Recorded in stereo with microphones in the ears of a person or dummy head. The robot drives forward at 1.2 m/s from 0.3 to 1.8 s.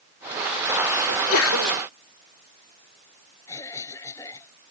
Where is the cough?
15° left (ahead or behind).